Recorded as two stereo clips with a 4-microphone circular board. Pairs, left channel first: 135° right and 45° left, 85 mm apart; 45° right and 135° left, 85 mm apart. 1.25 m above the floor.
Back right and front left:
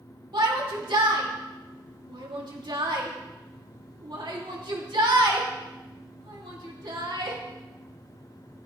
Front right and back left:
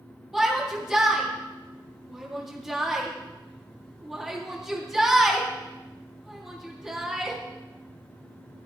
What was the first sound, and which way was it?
A shout, 50° left.